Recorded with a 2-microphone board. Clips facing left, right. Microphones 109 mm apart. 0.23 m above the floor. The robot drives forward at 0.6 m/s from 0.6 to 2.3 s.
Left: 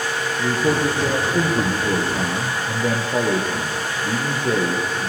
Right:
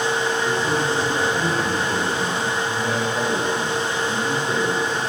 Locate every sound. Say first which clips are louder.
0.4 s a man speaking: left 2 dB; 75° left (ahead or behind), 5 m